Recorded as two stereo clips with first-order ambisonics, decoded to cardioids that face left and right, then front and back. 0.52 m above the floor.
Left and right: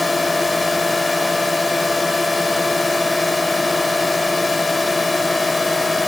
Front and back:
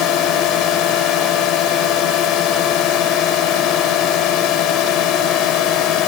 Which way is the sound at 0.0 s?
15° left.